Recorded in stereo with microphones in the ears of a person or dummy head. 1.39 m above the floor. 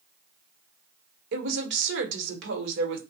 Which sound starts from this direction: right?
A woman speaking, at 1.3 s.